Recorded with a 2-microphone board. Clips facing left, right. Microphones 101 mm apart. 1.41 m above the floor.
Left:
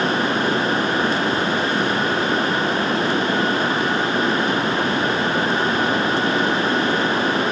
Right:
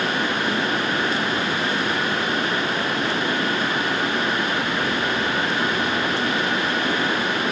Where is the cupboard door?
I don't hear a cupboard door.